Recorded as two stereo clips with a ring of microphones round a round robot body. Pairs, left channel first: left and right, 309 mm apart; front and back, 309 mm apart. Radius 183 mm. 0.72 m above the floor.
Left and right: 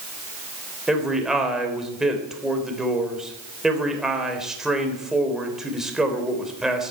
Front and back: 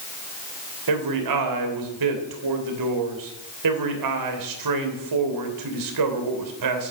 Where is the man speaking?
Straight behind, 3 m.